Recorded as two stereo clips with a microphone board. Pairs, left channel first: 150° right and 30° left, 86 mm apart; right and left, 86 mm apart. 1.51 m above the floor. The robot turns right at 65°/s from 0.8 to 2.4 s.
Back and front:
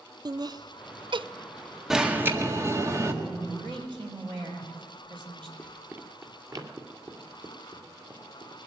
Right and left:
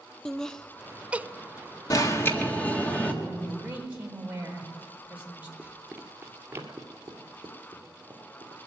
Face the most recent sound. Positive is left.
turn(degrees=45)